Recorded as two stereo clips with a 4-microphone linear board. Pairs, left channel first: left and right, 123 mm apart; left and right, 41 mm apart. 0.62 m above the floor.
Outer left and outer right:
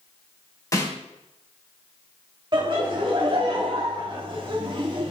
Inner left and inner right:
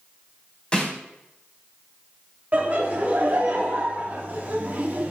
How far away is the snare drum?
About 3 m.